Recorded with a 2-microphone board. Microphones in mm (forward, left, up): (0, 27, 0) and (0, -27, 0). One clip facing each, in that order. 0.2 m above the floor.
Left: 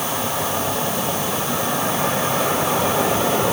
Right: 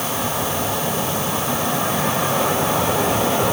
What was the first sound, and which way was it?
Only background noise.